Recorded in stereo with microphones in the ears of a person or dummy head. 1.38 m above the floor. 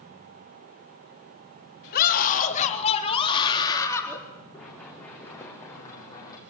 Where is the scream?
50° left (ahead or behind), 3.5 m; by 4.2 s 15° left (ahead or behind), 4 m.